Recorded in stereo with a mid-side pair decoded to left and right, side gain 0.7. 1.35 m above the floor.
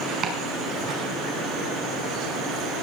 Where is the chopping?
50° right, 4.5 m.